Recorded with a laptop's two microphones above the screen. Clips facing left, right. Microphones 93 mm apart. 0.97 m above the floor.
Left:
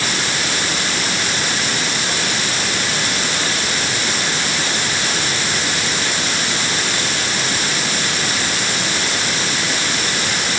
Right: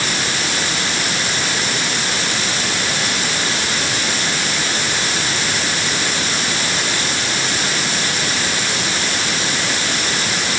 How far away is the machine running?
I don't hear a machine running.